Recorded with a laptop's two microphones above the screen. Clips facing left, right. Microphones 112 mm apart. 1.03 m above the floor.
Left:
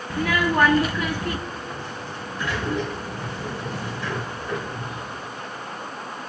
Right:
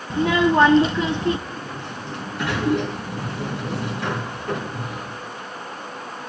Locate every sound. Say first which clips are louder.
0.1 s a child speaking: right 5 dB; 25° right (ahead or behind), 0.5 m
1.5 s a sliding door: right 1 dB; 70° right (ahead or behind), 2.5 m